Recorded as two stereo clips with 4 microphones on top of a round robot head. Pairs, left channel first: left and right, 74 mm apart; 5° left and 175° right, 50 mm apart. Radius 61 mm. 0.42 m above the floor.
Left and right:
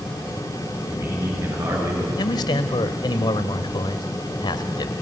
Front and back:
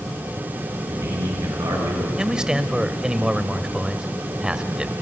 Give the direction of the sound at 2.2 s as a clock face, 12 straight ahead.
8 o'clock.